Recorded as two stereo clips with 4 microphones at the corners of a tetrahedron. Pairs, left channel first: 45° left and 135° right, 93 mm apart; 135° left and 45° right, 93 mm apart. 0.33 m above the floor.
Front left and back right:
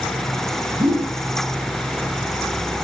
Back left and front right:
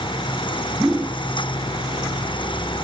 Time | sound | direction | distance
0.8 | a whoosh | 135° right | 2.5 m